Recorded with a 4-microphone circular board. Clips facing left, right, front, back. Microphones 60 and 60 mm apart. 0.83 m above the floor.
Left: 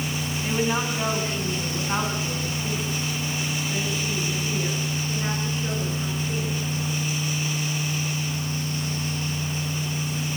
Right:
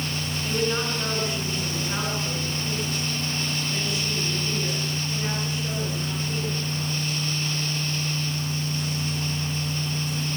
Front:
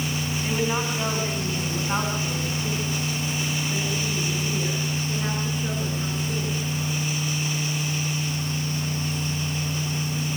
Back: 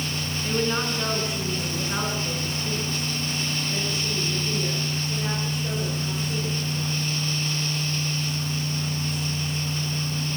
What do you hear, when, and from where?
0.4 s a woman speaking: 55° left, 7 m; by 7.1 s 25° left, 15 m